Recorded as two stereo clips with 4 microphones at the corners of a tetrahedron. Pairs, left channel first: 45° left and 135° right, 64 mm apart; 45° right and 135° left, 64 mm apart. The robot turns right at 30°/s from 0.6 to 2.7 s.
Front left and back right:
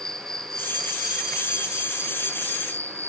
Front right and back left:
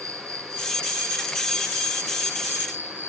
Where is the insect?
125° left, 1.1 m; by 3.1 s 175° right, 1.1 m.